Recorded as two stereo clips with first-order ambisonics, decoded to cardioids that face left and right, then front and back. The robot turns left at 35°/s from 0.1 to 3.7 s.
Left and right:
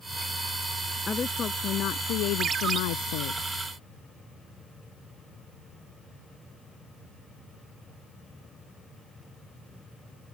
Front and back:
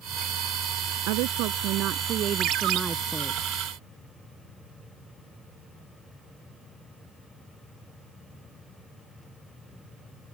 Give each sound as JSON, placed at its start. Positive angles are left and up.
{"t": 1.1, "sound": "a woman speaking", "azimuth_deg": 165}
{"t": 2.4, "sound": "a ringtone", "azimuth_deg": -145}